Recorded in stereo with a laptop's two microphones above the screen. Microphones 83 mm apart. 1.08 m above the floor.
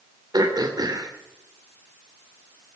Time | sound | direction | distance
0.3 | throat clearing | 50° right (ahead or behind) | 2.5 m